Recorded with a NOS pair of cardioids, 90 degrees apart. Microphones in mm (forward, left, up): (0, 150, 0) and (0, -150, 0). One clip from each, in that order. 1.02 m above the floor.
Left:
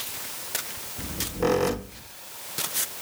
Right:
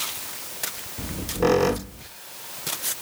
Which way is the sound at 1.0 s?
15° right.